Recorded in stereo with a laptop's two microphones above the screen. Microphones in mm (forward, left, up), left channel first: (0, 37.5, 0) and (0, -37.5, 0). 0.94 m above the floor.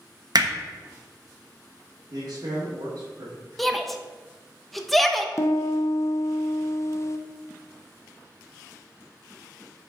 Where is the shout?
5° left (ahead or behind), 0.9 m.